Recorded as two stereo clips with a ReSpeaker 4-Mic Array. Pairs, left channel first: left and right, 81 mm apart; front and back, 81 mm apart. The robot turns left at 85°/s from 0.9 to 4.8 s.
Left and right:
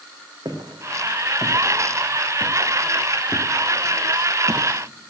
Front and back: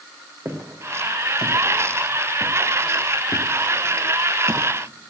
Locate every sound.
0.5 s footsteps: 125° right, 2.5 m; by 4.7 s 145° right, 0.8 m